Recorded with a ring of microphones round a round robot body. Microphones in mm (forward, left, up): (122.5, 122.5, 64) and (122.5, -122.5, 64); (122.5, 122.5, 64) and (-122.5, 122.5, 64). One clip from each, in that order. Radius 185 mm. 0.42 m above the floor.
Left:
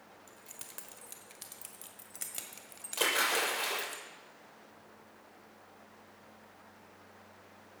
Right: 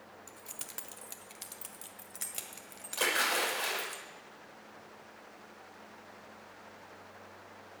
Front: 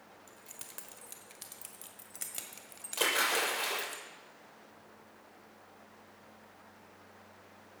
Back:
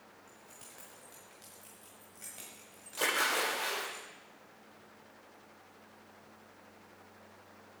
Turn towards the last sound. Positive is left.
turn(degrees=30)